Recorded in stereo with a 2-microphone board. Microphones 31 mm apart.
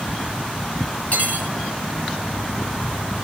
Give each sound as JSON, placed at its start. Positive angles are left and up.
{"t": 1.1, "sound": "cutlery clinking", "side_deg": 45, "distance_m": 2.0}